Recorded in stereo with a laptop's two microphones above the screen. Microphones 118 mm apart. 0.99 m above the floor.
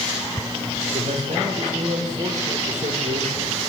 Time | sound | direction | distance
0.9 | a man speaking | 75° right (ahead or behind) | 3.5 m